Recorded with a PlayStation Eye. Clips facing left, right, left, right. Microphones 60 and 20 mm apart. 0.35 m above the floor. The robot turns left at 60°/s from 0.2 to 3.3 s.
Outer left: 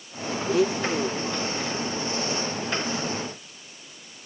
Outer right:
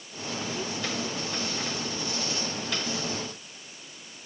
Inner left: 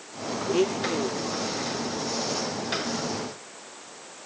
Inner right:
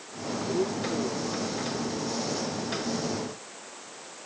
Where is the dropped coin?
No dropped coin in this recording.